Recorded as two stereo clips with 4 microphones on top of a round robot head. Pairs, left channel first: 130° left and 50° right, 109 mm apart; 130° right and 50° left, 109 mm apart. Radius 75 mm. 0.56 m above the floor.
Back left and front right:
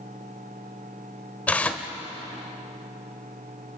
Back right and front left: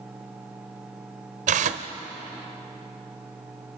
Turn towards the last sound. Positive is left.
turn(degrees=50)